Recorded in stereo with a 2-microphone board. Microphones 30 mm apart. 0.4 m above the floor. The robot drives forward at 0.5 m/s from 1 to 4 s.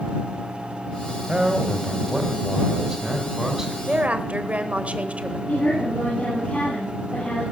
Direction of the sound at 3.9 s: 45° right (ahead or behind).